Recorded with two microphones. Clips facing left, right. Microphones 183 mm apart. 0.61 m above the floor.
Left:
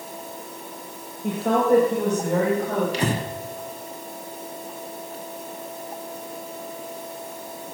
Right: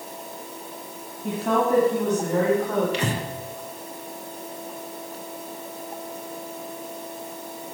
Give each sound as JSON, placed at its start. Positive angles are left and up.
{"t": 1.2, "sound": "a woman speaking", "side_deg": 75, "distance_m": 2.5}
{"t": 2.9, "sound": "breathing", "side_deg": 35, "distance_m": 0.9}